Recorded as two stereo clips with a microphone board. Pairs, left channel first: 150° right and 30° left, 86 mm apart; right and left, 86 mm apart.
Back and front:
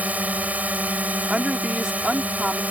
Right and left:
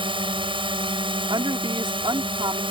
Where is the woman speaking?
110° left.